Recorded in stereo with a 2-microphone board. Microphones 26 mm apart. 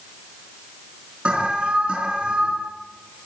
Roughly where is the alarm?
Right.